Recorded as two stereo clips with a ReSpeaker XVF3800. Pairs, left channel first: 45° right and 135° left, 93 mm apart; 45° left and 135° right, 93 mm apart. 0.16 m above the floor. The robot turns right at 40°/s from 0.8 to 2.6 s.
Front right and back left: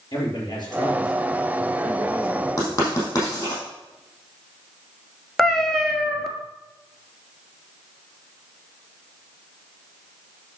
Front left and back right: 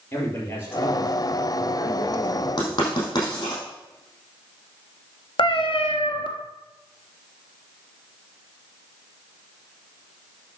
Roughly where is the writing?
Ahead.